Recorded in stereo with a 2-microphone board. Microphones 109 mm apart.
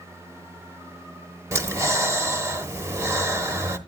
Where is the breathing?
25° right (ahead or behind), 0.9 m.